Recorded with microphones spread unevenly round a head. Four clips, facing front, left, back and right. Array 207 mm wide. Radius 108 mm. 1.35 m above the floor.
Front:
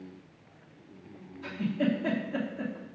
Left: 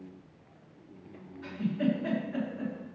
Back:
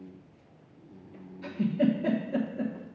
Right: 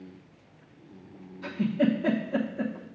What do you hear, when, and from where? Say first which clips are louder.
1.4 s a giggle: right 4 dB, back 3 dB; 135° right, 1.0 m